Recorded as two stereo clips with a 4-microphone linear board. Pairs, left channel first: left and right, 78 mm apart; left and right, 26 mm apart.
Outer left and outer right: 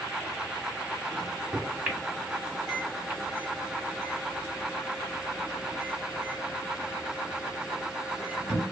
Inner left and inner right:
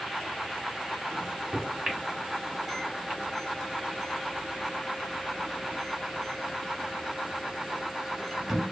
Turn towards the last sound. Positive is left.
turn(degrees=-10)  # may be behind; listen again after turning